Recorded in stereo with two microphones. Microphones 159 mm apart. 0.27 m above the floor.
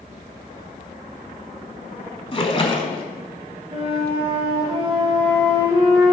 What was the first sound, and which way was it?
A splash, 35° left (ahead or behind).